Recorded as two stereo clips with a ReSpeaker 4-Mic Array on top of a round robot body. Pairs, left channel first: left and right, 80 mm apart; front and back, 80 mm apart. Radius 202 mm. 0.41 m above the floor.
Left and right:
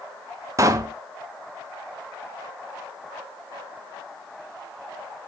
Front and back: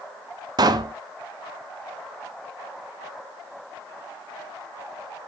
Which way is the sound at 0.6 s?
140° right.